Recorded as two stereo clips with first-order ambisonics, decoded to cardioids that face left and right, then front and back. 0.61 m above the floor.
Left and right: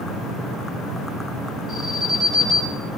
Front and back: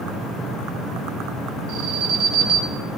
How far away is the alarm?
About 5.5 m.